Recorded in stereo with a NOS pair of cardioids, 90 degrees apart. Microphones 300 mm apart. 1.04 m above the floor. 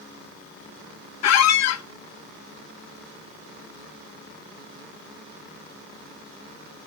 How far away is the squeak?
About 0.5 m.